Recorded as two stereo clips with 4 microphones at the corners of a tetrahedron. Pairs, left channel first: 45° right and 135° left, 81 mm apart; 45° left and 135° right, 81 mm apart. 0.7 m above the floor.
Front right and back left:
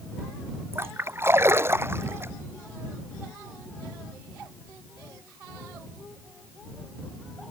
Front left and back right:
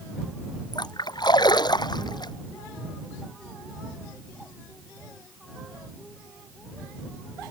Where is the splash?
75° left.